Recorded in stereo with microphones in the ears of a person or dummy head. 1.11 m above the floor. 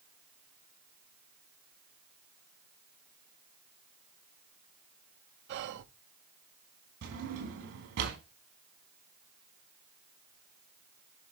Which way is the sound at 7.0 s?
60° right (ahead or behind).